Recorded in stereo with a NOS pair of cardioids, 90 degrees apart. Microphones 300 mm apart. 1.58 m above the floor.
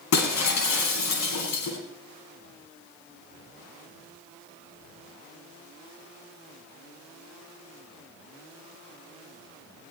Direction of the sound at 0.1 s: 65° left.